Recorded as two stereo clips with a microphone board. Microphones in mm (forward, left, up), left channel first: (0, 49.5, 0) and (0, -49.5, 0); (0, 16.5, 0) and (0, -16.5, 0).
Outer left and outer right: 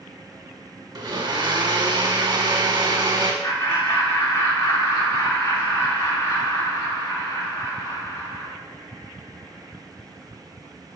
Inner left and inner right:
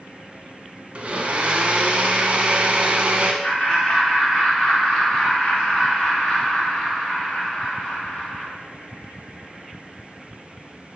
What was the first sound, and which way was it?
A blender, 45° right (ahead or behind).